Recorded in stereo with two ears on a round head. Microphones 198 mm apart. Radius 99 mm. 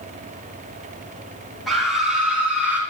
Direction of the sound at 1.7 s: Centre (ahead or behind).